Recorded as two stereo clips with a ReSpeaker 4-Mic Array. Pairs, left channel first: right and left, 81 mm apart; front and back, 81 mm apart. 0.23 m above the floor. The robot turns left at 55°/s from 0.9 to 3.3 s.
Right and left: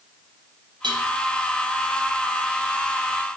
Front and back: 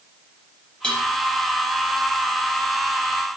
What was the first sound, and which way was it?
Dishes clattering, 75° left.